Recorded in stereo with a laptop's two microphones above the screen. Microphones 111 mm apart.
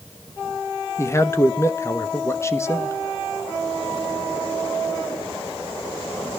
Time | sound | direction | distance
1.0 | a man speaking | 25° left (ahead or behind) | 1.1 m